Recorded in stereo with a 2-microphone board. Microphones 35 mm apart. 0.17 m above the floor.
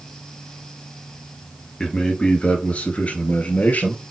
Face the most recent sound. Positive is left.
turn(degrees=55)  # may be behind; listen again after turning